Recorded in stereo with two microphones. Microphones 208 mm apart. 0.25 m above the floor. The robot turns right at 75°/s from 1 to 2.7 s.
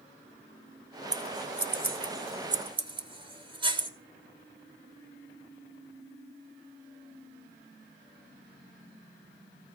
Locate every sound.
1.1 s scissors: 35° right (ahead or behind), 1.0 m; by 3.9 s 25° right (ahead or behind), 1.0 m